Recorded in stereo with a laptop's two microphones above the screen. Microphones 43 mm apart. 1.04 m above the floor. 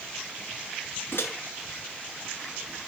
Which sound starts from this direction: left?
A microwave, at 1.1 s.